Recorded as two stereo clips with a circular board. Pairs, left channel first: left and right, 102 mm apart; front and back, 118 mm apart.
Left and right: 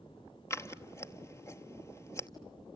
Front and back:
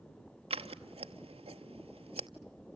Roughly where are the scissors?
Behind left.